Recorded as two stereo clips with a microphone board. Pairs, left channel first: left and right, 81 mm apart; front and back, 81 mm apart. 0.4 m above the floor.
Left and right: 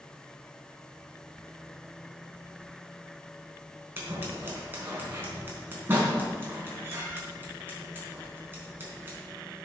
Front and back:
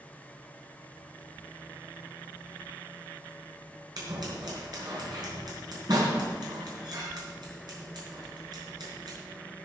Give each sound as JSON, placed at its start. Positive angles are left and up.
{"t": 4.0, "sound": "scissors", "azimuth_deg": -150, "distance_m": 4.0}